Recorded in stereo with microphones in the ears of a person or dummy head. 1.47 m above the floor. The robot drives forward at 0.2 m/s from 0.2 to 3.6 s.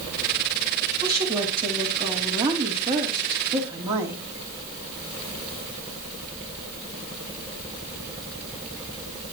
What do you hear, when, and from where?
1.0 s a woman speaking: 25° right (ahead or behind), 3 m; by 4.2 s 20° right (ahead or behind), 3.5 m